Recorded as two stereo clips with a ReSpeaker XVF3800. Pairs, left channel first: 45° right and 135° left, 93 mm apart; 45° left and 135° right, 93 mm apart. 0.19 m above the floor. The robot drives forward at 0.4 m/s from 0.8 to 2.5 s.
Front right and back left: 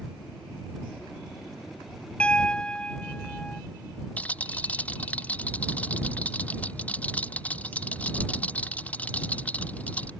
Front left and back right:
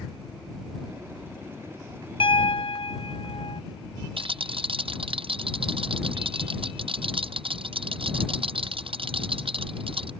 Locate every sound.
2.2 s a piano: 30° left; by 3.6 s 35° left
4.2 s a rattle: 120° right